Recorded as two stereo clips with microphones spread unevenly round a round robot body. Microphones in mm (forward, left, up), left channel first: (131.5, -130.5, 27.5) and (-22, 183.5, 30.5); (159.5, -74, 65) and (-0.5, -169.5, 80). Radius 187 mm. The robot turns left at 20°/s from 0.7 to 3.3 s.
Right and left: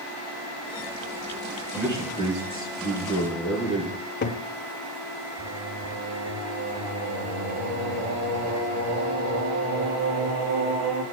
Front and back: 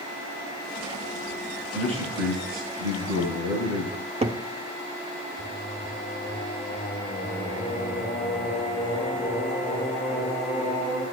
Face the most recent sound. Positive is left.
turn(degrees=95)